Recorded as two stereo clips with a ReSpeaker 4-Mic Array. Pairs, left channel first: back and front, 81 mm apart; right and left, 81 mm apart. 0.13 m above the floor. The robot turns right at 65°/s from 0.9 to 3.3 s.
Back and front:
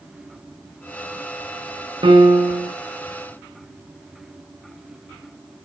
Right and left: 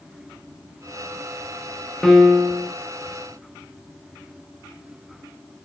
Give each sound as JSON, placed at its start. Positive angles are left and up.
{"t": 2.0, "sound": "a piano", "azimuth_deg": -10, "distance_m": 1.3}